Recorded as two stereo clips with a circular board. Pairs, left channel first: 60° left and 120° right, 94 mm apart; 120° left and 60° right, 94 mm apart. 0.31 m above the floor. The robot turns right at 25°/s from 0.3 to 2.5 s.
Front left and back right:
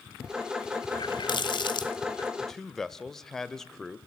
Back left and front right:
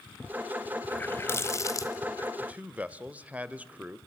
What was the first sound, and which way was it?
A running tap, 55° left.